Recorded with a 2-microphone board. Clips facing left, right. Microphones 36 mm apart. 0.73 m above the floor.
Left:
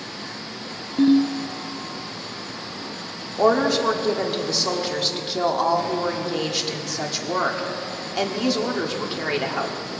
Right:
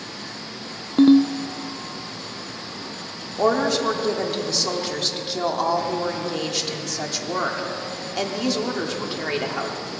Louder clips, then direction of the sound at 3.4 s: Left 2 dB; 5° left (ahead or behind).